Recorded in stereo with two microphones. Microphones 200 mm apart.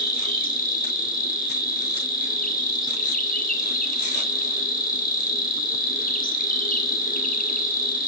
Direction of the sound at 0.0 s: 45° left (ahead or behind).